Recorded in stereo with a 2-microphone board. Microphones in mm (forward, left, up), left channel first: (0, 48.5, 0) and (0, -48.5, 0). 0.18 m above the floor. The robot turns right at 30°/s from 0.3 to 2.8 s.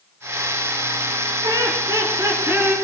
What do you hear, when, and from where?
1.4 s laughter: 65° right, 2.5 m; by 2.8 s 25° right, 2.5 m